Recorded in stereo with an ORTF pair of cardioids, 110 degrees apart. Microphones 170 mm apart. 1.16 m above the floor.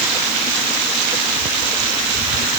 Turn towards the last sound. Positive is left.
No sound to turn to.